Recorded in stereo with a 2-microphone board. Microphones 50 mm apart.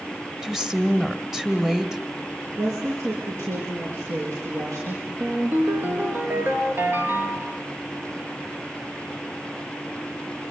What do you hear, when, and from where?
0.4 s a woman speaking: 10° right (ahead or behind), 1.6 m
2.6 s a woman speaking: 75° right (ahead or behind), 6 m
5.2 s a ringtone: 40° right (ahead or behind), 2.5 m